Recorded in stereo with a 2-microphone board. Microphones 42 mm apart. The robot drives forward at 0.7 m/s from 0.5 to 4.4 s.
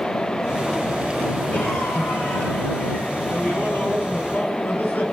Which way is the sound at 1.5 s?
70° left (ahead or behind).